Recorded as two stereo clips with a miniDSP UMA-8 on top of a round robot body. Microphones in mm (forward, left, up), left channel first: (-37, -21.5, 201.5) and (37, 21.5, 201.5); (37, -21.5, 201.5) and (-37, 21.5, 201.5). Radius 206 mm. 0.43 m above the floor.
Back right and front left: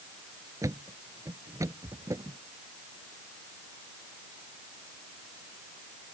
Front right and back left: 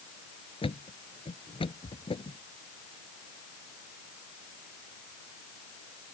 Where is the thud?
25° right.